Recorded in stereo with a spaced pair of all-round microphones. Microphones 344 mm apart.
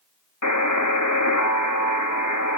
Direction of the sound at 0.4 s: 50° left (ahead or behind).